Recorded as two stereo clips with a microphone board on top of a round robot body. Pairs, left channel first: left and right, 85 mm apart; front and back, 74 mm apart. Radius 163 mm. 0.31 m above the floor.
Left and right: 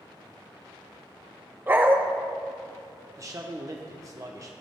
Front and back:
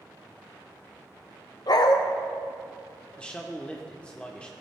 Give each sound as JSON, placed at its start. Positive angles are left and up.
{"t": 1.7, "sound": "a dog barking", "azimuth_deg": -25, "distance_m": 0.8}
{"t": 3.2, "sound": "a man speaking", "azimuth_deg": -70, "distance_m": 1.0}